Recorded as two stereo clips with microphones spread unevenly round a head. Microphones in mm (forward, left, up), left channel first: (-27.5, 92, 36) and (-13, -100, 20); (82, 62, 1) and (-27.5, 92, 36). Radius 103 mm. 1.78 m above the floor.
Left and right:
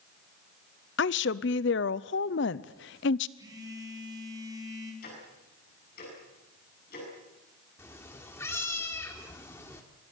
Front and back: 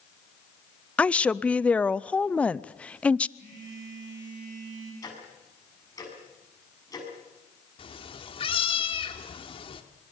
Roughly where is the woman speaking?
Left.